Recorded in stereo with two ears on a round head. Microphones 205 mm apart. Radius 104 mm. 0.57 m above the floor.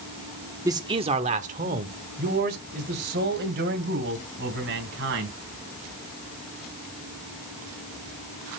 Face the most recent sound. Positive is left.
turn(degrees=-50)  # may be behind; listen again after turning